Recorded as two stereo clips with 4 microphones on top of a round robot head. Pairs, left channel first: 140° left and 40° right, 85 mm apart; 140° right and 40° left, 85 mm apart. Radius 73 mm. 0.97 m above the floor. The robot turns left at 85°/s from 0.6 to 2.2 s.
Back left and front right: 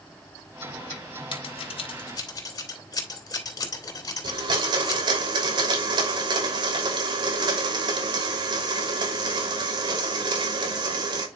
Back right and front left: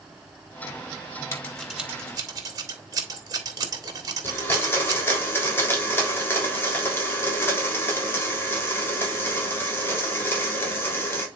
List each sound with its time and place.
1.3 s scissors: 165° left, 2.5 m; by 5.0 s 90° left, 2.5 m
4.2 s a blender: 70° right, 3 m